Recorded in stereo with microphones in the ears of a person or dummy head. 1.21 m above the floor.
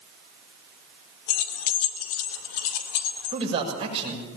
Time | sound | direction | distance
1.3 | keys jangling | 80° left | 1.9 m
3.3 | a man speaking | 20° right (ahead or behind) | 7 m